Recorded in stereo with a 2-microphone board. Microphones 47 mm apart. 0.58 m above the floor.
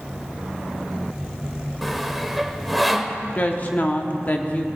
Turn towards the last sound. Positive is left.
turn(degrees=35)  # may be behind; listen again after turning